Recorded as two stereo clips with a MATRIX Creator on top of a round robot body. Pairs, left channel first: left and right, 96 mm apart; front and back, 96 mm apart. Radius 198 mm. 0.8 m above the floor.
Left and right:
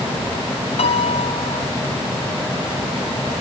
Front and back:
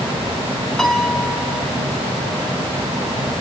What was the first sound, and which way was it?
A piano, 85° left.